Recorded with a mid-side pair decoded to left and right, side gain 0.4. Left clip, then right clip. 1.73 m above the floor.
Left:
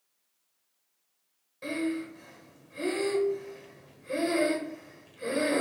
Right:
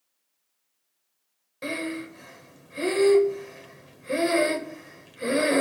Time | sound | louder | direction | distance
1.6 | breathing | right 1 dB | 65° right | 0.9 m